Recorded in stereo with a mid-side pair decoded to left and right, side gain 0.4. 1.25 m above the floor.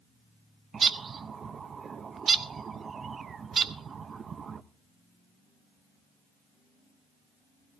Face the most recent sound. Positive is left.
turn(degrees=-50)